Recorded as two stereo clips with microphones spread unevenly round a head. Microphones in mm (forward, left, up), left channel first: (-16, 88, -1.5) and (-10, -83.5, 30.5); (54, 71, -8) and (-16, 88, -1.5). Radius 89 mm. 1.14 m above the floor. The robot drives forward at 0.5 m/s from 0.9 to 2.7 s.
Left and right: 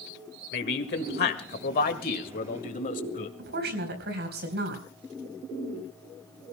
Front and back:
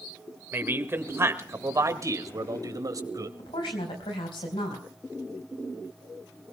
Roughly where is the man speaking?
Left.